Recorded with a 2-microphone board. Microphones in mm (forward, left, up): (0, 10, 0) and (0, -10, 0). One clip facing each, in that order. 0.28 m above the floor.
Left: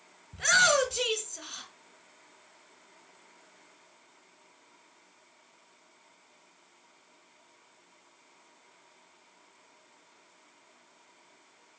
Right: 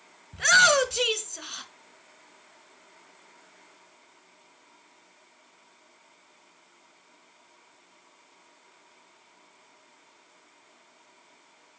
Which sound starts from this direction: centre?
A shout, at 0.3 s.